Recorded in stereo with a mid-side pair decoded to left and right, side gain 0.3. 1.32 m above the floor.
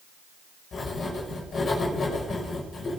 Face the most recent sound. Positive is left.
turn(degrees=65)